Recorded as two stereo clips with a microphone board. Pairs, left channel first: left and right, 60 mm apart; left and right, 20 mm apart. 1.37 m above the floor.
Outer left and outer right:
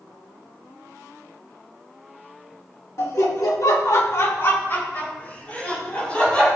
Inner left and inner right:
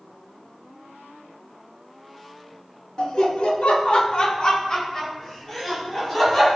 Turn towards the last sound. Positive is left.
turn(degrees=20)  # may be behind; listen again after turning